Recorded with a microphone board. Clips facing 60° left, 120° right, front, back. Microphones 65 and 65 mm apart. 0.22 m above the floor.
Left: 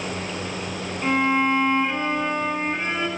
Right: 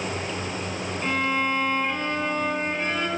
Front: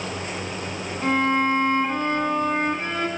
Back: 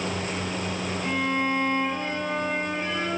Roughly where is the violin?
Ahead.